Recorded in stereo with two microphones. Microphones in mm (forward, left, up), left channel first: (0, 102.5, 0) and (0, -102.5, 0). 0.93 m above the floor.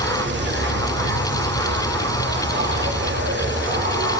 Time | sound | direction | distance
0.0 | an insect | 65° right (ahead or behind) | 1.0 m